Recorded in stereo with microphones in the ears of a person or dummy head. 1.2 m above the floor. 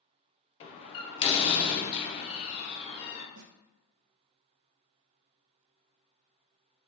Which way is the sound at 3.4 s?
80° right.